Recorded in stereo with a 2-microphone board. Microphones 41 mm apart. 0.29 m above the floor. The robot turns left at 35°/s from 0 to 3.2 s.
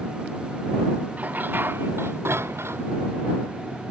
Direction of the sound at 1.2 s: 40° right.